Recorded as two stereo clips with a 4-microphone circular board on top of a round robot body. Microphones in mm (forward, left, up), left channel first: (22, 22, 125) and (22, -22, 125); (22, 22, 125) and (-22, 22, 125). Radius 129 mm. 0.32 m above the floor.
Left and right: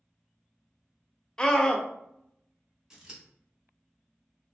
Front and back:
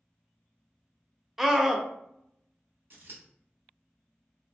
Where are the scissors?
165° right, 1.4 m.